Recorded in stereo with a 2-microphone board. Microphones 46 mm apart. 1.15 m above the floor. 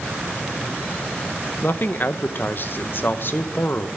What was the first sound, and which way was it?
A man speaking, 50° left (ahead or behind).